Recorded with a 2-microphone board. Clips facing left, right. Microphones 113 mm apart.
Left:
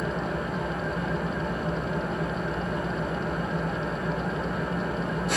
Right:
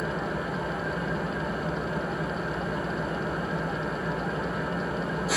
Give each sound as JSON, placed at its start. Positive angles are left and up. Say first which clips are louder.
{"t": 0.0, "sound": "an engine running", "louder": "left 1 dB", "side_deg": 0, "distance_m": 1.4}